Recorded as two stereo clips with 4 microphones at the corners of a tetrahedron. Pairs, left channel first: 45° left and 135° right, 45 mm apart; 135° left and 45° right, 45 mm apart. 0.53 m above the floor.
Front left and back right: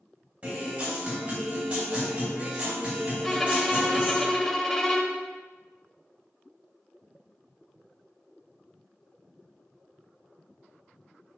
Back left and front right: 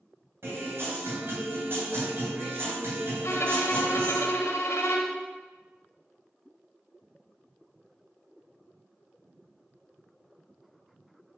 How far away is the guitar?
About 3 m.